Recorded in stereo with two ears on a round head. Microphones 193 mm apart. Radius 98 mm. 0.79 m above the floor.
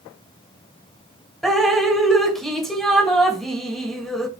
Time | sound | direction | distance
1.4 | dripping | centre (ahead or behind) | 1.2 m